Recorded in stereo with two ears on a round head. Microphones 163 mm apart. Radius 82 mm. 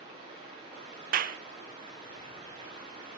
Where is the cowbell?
I don't hear a cowbell.